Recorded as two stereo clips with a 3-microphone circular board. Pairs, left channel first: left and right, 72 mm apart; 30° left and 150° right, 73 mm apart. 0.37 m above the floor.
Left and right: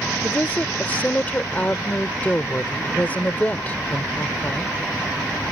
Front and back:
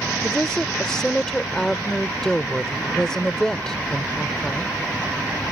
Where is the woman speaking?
100° left.